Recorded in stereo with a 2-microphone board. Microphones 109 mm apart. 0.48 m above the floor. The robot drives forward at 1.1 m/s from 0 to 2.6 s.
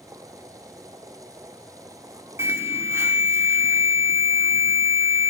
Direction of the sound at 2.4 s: 25° right (ahead or behind).